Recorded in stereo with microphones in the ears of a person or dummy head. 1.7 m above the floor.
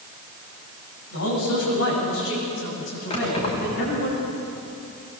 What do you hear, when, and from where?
1.1 s a man speaking: 85° left, 9.5 m; by 4.1 s 75° left (ahead or behind), 10 m
3.1 s keys jangling: 40° left (ahead or behind), 5.5 m